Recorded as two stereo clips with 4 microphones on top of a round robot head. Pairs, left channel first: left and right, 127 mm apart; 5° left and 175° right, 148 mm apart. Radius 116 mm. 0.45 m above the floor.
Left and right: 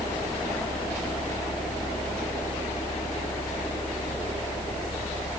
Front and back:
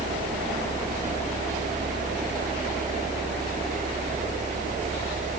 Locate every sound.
Only background noise.